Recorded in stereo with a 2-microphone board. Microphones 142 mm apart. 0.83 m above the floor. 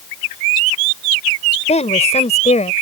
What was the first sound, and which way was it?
A woman speaking, 55° left (ahead or behind).